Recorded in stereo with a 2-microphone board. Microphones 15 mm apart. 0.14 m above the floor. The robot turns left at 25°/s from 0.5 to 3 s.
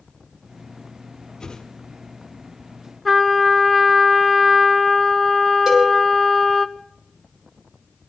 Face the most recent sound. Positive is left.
turn(degrees=-25)  # may be behind; listen again after turning